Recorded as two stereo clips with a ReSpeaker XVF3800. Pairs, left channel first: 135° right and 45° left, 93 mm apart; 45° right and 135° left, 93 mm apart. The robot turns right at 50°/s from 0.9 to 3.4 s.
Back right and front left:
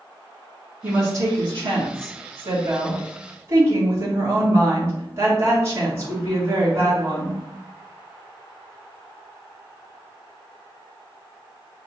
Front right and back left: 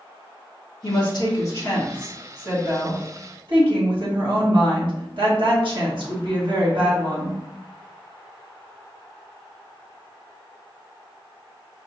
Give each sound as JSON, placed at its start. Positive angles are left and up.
{"t": 0.8, "sound": "a woman speaking", "azimuth_deg": -20, "distance_m": 2.0}